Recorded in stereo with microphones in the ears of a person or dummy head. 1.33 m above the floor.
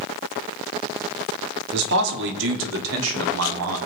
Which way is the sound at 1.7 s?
60° right (ahead or behind).